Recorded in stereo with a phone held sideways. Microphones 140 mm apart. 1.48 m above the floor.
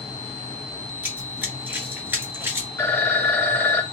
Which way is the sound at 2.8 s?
15° left (ahead or behind).